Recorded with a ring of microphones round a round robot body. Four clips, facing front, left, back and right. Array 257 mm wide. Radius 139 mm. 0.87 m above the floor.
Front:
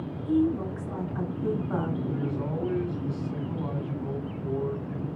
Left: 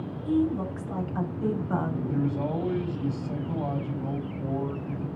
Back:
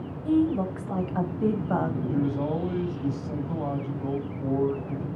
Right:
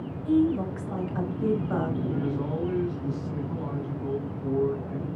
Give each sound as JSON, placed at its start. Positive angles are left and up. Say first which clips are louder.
{"t": 0.2, "sound": "a woman speaking", "louder": "right 3 dB, back 2 dB", "azimuth_deg": -170, "distance_m": 5.5}
{"t": 2.1, "sound": "a man speaking", "louder": "left 1 dB, back 4 dB", "azimuth_deg": 140, "distance_m": 7.0}